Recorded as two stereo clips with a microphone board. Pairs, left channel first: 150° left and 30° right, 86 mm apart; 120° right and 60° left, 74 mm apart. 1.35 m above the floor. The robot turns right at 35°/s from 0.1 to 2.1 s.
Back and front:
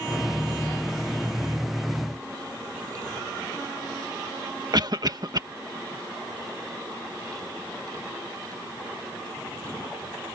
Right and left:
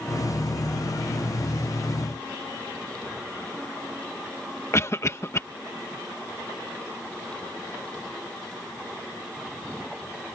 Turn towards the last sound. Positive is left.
turn(degrees=-65)